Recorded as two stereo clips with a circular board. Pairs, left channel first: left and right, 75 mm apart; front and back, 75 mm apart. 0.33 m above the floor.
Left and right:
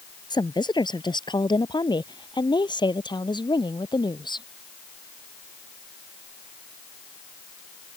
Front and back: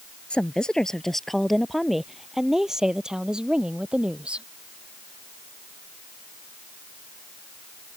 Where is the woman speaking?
75° left; by 4.5 s 105° left.